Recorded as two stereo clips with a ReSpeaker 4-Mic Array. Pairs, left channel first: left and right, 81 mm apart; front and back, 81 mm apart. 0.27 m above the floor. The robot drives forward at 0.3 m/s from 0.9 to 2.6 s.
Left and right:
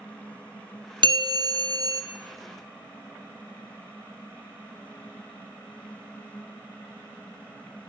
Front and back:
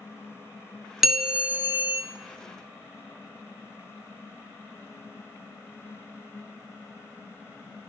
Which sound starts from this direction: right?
A bell, at 1.0 s.